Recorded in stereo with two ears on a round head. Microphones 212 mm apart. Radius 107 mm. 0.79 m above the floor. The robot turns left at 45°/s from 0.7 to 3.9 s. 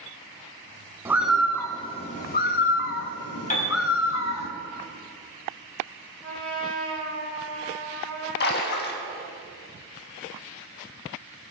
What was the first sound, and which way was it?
A bird, 170° right.